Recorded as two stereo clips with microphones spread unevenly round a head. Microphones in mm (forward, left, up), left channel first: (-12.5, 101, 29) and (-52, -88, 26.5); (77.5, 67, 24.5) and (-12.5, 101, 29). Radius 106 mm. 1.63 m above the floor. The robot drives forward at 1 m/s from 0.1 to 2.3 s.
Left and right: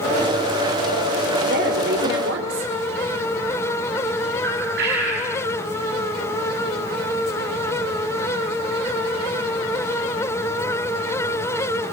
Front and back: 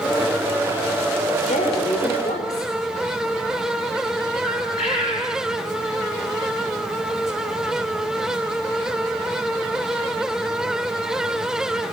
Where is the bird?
60° right, 5 m.